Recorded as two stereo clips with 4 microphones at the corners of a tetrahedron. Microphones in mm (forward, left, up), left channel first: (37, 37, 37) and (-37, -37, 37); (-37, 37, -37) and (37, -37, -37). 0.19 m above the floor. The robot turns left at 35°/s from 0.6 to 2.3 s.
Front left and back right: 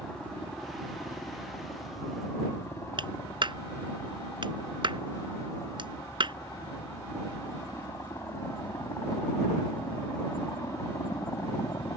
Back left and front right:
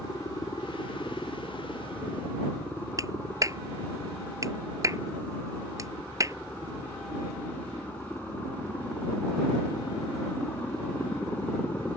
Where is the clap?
100° right.